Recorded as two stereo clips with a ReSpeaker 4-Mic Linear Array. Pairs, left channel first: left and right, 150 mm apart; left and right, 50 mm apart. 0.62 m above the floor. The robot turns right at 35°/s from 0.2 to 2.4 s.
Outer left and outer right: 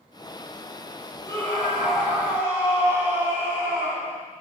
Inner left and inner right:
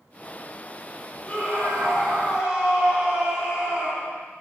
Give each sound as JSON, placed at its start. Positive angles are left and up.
{"t": 1.2, "sound": "a scream", "azimuth_deg": 155, "distance_m": 5.5}